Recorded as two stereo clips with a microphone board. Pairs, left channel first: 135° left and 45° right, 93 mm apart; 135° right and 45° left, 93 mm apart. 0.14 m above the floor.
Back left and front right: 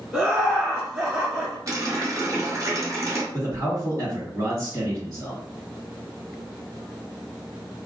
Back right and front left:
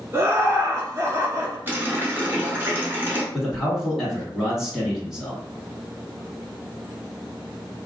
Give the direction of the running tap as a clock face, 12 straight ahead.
12 o'clock.